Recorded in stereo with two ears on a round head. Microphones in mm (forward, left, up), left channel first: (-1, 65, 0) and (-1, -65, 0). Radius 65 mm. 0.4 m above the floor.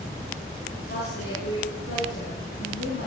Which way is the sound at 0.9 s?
80° left.